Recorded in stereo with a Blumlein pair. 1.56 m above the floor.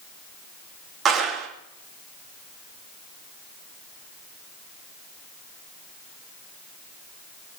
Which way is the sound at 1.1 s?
25° right.